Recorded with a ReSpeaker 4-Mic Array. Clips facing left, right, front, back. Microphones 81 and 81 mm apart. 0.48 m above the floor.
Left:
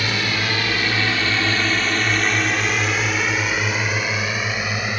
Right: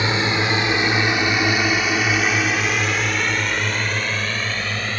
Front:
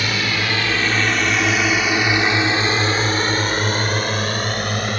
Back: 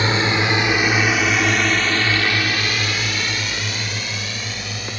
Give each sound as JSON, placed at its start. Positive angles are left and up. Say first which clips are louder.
{"t": 0.0, "sound": "a drone", "louder": "right 3 dB, back 3 dB", "azimuth_deg": -140}